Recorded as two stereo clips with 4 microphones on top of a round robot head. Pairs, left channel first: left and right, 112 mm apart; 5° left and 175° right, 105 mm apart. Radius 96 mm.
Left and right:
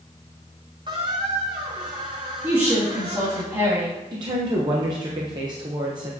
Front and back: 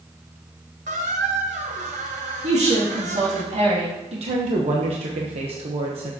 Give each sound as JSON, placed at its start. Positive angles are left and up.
{"t": 0.9, "sound": "a squeak", "azimuth_deg": -150, "distance_m": 0.8}
{"t": 2.4, "sound": "a woman speaking", "azimuth_deg": -160, "distance_m": 2.5}
{"t": 4.1, "sound": "a woman speaking", "azimuth_deg": -145, "distance_m": 1.0}